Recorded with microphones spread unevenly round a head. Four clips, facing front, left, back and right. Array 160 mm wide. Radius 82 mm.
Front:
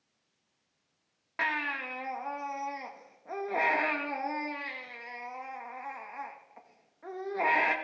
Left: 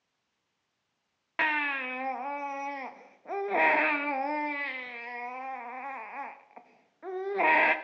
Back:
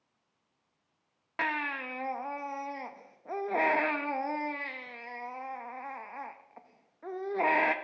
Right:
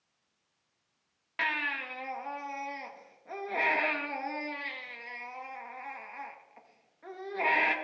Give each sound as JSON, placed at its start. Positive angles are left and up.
{"t": 1.4, "sound": "a baby crying", "azimuth_deg": 110, "distance_m": 0.5}